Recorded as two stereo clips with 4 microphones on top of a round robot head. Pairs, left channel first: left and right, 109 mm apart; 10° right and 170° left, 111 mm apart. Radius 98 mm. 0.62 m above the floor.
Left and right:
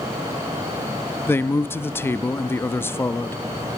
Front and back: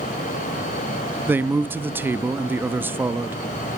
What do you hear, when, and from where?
1.3 s a man speaking: 125° left, 0.6 m